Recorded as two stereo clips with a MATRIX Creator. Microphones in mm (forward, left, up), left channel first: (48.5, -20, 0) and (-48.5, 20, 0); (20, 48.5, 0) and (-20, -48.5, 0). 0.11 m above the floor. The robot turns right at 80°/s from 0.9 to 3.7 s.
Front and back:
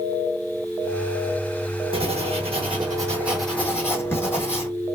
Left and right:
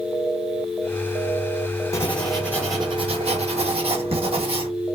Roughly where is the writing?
Behind left.